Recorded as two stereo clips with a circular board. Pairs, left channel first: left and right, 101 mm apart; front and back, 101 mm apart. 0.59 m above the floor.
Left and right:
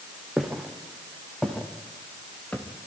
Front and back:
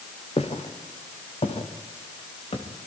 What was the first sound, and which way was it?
Footsteps, 5° right.